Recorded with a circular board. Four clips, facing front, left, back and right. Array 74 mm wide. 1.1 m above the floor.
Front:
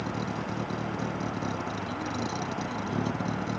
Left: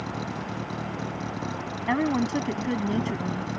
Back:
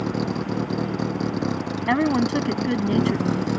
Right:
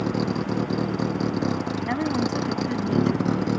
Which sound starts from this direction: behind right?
A vehicle, at 0.0 s.